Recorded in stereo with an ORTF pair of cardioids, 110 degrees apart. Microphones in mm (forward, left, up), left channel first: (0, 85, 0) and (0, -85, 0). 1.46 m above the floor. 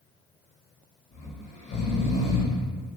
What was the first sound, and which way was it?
Snoring, 40° left.